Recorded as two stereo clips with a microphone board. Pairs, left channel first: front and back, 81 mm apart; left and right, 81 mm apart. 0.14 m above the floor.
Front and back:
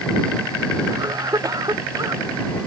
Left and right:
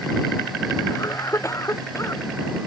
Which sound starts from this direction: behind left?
A cough, at 0.9 s.